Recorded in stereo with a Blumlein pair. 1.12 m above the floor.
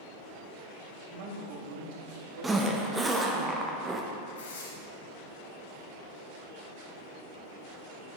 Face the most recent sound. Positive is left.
turn(degrees=60)